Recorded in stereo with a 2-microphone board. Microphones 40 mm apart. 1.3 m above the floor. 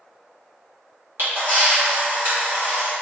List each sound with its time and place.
1.2 s a camera shutter: 65° right (ahead or behind), 2.0 m